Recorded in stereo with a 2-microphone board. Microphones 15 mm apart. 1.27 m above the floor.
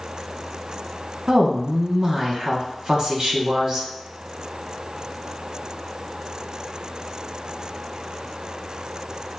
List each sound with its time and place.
1.3 s a woman speaking: 45° right (ahead or behind), 1.0 m